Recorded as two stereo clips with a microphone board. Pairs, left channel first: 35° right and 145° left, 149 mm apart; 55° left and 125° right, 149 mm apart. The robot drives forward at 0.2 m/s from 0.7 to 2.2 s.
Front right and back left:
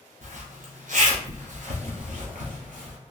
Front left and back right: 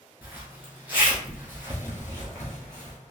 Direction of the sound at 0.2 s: 160° left.